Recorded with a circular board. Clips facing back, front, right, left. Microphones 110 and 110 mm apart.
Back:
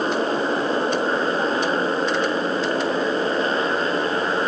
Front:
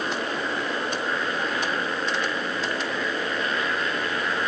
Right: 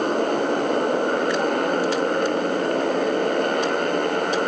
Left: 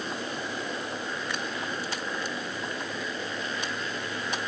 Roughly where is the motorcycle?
Behind right.